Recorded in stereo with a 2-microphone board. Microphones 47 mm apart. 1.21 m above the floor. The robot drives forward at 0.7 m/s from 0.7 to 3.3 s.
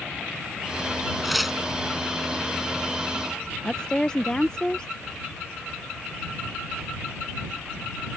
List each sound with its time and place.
1.2 s tearing paper: 5° right (ahead or behind)
3.6 s a woman speaking: 15° left (ahead or behind)